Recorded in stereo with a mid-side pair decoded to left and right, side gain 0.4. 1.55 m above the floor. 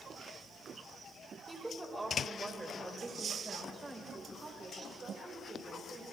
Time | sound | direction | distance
1.5 | a woman speaking | 20° right | 5.5 m